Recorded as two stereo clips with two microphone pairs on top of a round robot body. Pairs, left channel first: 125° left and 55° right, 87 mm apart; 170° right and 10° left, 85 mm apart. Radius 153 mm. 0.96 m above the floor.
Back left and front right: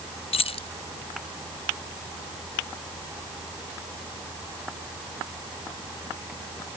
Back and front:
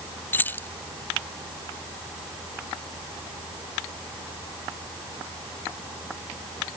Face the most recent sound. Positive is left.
turn(degrees=120)